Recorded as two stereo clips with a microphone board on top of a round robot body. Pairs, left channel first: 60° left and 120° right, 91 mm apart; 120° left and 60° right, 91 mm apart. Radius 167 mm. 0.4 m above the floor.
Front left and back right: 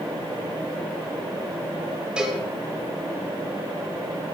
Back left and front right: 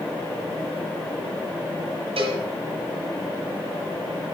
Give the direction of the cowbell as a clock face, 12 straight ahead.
1 o'clock.